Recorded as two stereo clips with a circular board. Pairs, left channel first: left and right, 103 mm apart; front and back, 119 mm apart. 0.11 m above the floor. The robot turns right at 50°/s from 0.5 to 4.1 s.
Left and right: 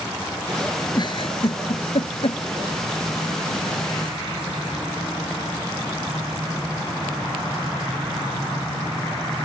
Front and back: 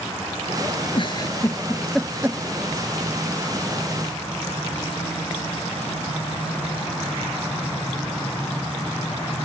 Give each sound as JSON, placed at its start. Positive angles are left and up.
{"t": 0.9, "sound": "a giggle", "azimuth_deg": 40}